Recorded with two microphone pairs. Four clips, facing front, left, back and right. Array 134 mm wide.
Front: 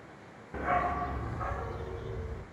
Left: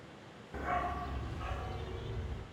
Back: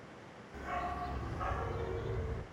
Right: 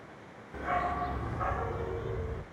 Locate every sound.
0.5 s a dog barking: 5° right, 0.6 m; by 2.4 s 100° right, 1.2 m